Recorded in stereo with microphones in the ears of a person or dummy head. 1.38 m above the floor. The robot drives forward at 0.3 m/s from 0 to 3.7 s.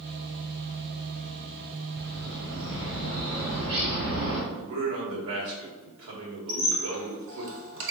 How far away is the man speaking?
About 1.3 m.